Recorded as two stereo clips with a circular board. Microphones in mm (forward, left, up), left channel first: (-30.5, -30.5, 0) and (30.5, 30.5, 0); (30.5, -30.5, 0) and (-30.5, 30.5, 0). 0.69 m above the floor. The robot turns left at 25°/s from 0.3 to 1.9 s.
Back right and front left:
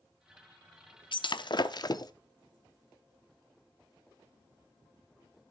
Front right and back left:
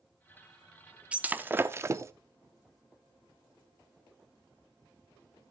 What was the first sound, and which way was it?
Breaking glass, 150° right.